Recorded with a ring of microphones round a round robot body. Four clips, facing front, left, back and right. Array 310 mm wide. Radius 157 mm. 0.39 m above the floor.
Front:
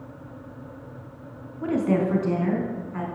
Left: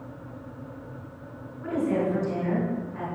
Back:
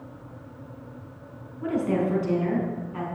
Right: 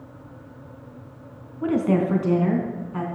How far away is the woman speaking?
About 3 m.